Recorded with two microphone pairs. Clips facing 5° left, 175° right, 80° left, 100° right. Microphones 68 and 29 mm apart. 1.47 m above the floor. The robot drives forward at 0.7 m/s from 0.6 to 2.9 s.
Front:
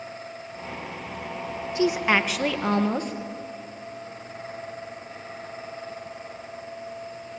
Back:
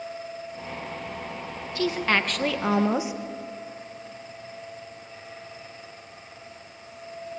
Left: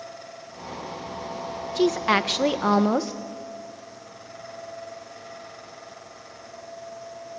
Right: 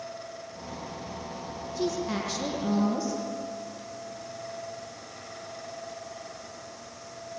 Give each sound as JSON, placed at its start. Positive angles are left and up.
{"t": 1.8, "sound": "a woman speaking", "azimuth_deg": 75, "distance_m": 1.6}